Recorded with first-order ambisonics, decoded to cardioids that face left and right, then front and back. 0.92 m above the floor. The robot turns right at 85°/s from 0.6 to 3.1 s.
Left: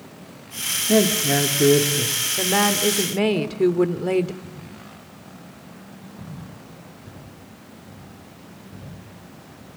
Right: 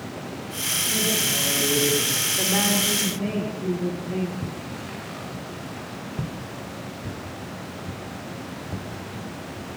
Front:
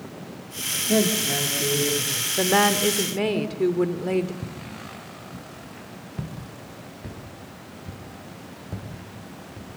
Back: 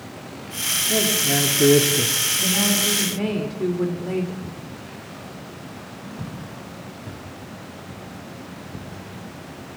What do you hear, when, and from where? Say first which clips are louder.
0.9 s a man speaking: left 7 dB, even; 70° left, 2 m; by 2.1 s straight behind, 2 m
2.4 s a woman speaking: left 5 dB, front 1 dB; 10° left, 2.5 m; by 4.3 s 70° left, 2.5 m
4.4 s footsteps: right 7 dB, back 1 dB; 55° right, 6.5 m; by 9.7 s 35° right, 12 m